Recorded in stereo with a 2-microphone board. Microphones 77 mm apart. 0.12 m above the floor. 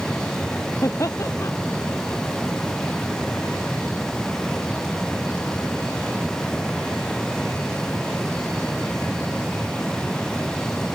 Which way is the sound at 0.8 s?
40° left (ahead or behind).